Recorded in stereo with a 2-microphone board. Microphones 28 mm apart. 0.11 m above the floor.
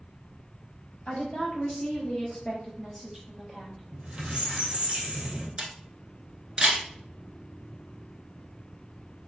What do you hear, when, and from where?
1.1 s a woman speaking: 45° left (ahead or behind), 2.0 m; by 3.8 s 5° left (ahead or behind), 2.5 m
3.9 s a squeak: 45° right (ahead or behind), 1.5 m
5.6 s a camera shutter: 30° right (ahead or behind), 1.3 m